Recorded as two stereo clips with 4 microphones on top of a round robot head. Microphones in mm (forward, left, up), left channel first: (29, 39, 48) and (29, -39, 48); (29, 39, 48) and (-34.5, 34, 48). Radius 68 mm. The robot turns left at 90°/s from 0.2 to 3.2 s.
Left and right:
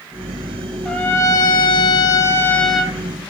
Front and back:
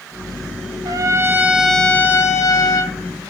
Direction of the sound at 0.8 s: 175° left.